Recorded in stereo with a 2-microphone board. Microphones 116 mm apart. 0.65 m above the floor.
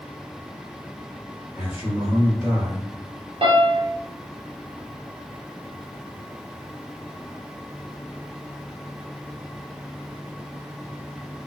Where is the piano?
60° right (ahead or behind), 0.8 m.